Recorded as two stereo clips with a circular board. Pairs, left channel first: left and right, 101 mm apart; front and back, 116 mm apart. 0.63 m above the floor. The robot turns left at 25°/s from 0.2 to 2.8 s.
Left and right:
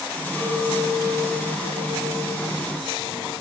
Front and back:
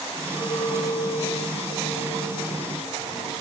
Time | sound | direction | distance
0.3 | a clink | 5° left | 9 m